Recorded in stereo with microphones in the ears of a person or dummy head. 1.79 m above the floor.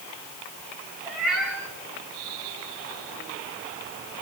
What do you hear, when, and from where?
1.1 s a cat meowing: 10° right (ahead or behind), 5 m